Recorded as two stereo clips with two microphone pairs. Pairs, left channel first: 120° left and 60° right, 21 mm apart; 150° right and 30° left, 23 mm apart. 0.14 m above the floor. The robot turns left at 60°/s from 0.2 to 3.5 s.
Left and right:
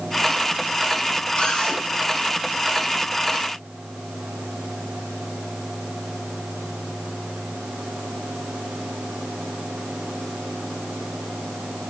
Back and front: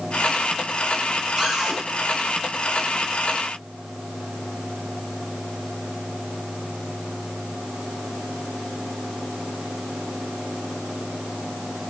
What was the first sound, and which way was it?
A cupboard door, 90° left.